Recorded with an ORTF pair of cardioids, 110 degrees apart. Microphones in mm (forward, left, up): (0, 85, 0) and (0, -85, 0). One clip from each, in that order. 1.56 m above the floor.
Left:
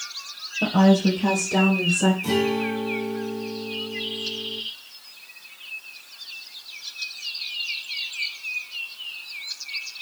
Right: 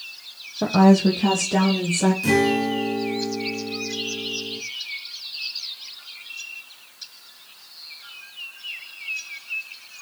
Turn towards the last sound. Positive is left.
turn(degrees=-70)